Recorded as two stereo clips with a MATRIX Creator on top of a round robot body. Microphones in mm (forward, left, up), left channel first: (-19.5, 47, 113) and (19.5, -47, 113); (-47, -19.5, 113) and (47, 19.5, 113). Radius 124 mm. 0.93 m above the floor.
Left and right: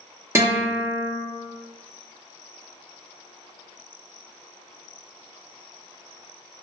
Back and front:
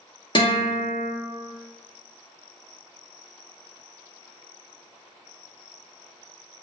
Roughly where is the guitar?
Behind right.